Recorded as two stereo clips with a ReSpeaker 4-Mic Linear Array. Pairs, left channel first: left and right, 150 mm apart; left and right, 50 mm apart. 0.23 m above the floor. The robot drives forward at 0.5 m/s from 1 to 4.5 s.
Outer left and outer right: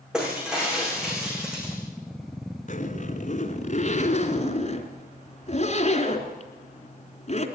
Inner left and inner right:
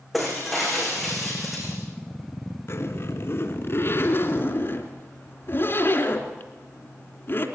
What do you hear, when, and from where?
0.1 s breaking glass: 5° right (ahead or behind), 8 m
2.7 s a zipper: 60° left (ahead or behind), 2.5 m; by 7.5 s 50° left (ahead or behind), 3 m